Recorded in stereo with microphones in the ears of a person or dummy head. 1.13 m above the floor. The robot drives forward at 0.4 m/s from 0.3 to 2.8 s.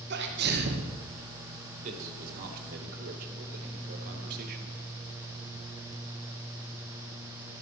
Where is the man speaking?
45° right (ahead or behind), 1.8 m; by 4.8 s 55° right (ahead or behind), 1.5 m.